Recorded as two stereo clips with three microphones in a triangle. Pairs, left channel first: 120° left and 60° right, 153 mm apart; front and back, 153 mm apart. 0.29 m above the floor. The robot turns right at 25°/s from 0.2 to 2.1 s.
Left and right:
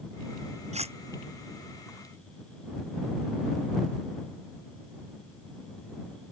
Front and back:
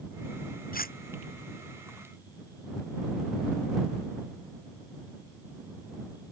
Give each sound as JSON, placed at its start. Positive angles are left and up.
{"t": 0.7, "sound": "cutlery clinking", "azimuth_deg": -15}